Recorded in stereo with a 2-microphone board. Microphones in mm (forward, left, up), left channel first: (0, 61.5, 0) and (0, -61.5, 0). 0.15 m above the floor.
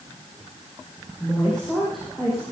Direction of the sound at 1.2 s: 5° left (ahead or behind).